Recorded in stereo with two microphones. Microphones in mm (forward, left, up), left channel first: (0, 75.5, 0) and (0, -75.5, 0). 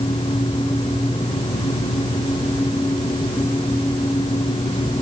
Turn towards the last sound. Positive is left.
No sound to turn to.